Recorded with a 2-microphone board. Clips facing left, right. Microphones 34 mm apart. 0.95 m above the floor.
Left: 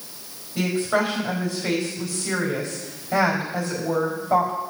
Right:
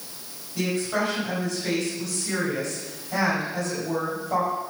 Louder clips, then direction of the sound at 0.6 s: Left 3 dB; 25° left (ahead or behind).